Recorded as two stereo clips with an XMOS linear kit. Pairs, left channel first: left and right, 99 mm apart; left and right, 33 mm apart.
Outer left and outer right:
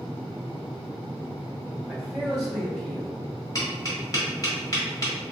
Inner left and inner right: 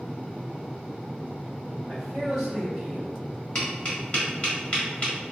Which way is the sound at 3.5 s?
35° left (ahead or behind).